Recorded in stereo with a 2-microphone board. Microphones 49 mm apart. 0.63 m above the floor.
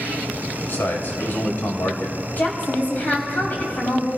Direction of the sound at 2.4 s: 35° left (ahead or behind).